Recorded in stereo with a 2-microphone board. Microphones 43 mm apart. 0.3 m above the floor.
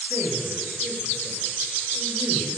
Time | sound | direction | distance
0.1 | a man speaking | 75° right (ahead or behind) | 6 m